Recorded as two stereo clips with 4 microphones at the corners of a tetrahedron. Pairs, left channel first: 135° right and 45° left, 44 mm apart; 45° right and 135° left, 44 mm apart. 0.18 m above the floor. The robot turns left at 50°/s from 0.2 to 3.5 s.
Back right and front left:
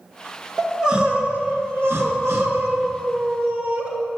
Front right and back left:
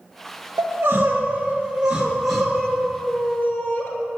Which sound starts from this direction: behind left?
Crying, at 0.6 s.